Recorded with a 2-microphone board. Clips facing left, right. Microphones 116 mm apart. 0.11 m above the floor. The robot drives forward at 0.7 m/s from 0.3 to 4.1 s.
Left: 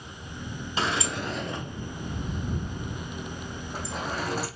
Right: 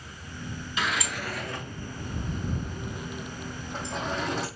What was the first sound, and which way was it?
A sliding door, 30° left (ahead or behind).